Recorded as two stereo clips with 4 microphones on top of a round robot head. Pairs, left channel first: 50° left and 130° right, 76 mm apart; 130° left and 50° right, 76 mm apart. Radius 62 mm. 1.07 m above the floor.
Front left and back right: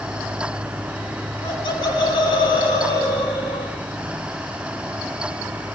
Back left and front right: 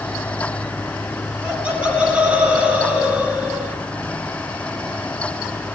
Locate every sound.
1.4 s laughter: 30° left, 6.5 m; by 3.8 s 25° left, 4.5 m